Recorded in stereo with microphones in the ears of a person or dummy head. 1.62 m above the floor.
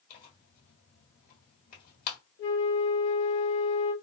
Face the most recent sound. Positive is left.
turn(degrees=60)  # may be behind; listen again after turning